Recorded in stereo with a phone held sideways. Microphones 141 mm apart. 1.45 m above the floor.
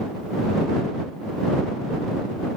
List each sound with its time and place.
Only background noise.